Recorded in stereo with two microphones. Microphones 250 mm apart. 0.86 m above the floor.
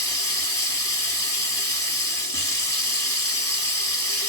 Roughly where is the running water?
Centre.